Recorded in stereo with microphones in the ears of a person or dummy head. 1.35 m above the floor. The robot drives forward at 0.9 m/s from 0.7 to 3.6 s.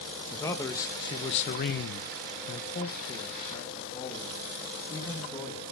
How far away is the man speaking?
About 1.2 m.